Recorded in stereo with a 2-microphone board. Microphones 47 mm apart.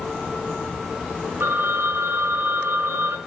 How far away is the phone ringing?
About 4 m.